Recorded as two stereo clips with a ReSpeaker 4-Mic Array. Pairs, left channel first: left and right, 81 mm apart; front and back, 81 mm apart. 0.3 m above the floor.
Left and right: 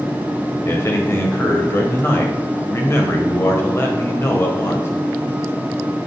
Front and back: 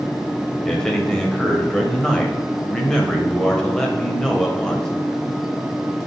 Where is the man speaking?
80° left, 1.5 m.